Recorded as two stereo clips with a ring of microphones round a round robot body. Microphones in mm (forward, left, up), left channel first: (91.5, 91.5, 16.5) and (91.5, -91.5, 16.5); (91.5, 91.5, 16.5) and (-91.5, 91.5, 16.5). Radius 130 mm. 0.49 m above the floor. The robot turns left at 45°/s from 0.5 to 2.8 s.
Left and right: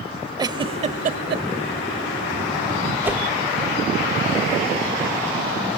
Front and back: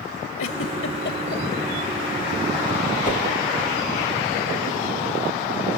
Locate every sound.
0.4 s a giggle: 20° right, 0.9 m; by 1.4 s 65° right, 0.9 m
3.0 s a whoosh: 15° right, 1.4 m